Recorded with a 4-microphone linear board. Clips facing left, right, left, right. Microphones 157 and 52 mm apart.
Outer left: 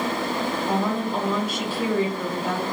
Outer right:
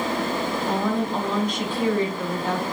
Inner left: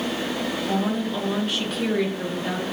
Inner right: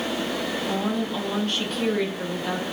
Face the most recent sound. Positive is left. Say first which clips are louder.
# outer right 1 dB, inner left 2 dB
turn(degrees=5)  # may be behind; listen again after turning